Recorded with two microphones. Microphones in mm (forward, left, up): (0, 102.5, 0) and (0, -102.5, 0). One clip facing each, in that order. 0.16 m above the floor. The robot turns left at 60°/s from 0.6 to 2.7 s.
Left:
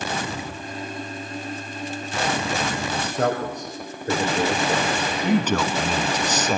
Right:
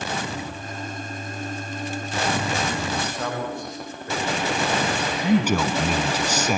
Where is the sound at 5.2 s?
10° right (ahead or behind), 1.0 m.